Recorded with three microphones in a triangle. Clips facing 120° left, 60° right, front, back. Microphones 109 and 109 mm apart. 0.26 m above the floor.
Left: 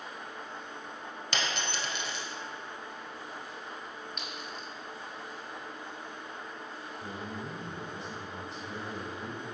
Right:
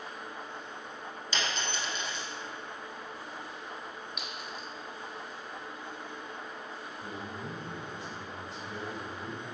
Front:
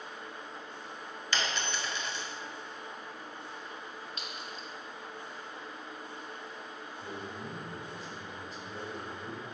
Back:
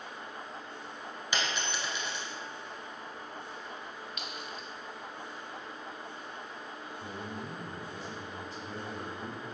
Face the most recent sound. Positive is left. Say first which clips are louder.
# left 2 dB, back 1 dB
turn(degrees=160)